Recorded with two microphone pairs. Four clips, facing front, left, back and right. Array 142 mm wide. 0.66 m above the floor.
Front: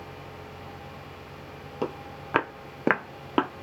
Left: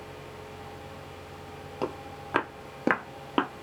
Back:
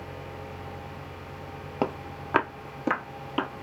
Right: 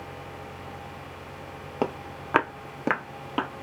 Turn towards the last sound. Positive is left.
turn(degrees=25)